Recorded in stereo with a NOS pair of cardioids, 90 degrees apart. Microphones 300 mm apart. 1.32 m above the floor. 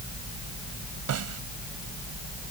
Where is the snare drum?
60° right.